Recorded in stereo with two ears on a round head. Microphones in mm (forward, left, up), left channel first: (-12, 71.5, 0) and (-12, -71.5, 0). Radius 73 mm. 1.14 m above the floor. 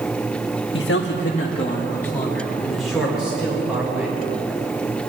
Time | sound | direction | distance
0.7 | a man speaking | 85° left | 1.4 m